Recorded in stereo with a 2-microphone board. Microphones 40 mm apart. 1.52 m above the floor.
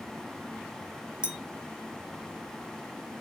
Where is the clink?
25° right (ahead or behind), 0.9 m.